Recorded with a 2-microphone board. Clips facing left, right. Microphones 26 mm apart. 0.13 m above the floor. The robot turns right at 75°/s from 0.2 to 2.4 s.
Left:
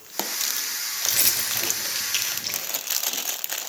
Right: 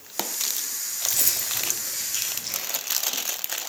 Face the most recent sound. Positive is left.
turn(degrees=40)  # may be behind; listen again after turning